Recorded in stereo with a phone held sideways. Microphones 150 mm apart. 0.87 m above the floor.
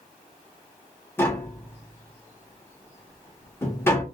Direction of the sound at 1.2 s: 15° left (ahead or behind).